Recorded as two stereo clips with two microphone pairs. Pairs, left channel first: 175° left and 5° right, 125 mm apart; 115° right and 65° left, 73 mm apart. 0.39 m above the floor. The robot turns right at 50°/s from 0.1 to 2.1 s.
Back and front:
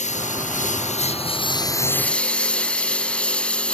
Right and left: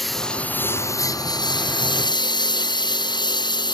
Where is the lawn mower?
155° left; by 3.7 s 105° right.